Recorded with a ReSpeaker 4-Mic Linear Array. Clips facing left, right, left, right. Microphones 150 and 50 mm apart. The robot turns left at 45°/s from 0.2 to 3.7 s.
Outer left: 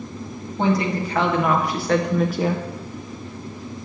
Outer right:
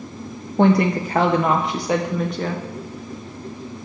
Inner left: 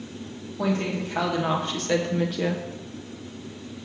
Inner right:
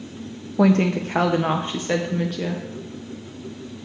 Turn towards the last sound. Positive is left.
turn(degrees=115)